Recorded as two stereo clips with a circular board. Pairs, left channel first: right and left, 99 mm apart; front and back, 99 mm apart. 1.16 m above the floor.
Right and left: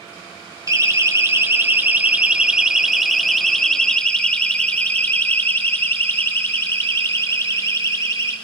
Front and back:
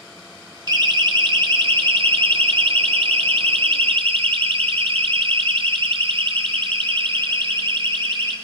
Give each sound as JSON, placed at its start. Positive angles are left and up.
{"t": 0.7, "sound": "a siren", "azimuth_deg": 140, "distance_m": 2.5}